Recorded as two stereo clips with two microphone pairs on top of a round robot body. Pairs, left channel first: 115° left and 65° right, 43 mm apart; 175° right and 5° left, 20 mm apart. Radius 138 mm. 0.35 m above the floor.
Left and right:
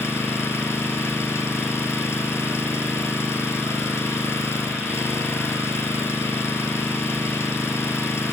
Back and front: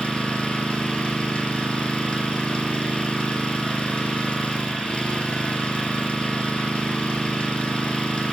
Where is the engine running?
135° left, 4 m.